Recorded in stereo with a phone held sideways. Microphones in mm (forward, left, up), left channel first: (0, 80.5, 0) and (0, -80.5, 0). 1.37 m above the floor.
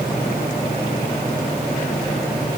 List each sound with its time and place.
Only background noise.